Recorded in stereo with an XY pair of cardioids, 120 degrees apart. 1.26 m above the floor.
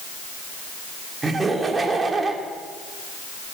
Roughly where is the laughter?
Ahead right.